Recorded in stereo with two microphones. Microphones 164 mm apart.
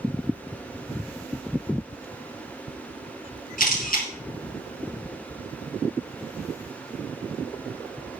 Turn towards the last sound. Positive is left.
turn(degrees=60)  # may be behind; listen again after turning